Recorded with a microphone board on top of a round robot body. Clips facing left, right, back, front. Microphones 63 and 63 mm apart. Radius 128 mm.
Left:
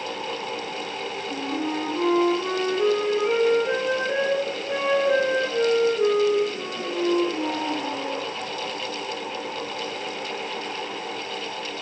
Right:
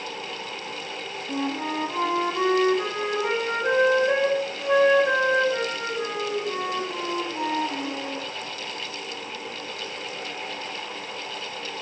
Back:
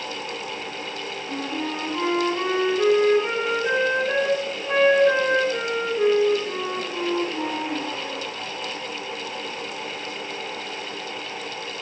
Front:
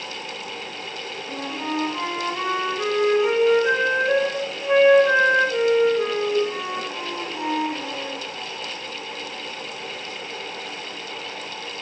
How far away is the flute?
About 3 m.